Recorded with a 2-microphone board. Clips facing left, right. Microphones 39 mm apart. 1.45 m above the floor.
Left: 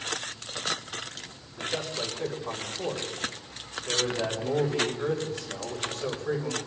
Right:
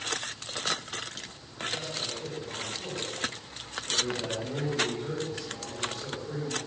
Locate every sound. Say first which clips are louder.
1.6 s a man speaking: left 2 dB; 85° left, 5 m